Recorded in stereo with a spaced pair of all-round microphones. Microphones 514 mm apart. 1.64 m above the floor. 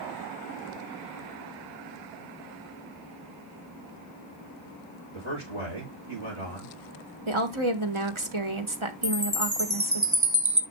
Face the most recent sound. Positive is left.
turn(degrees=-35)  # may be behind; listen again after turning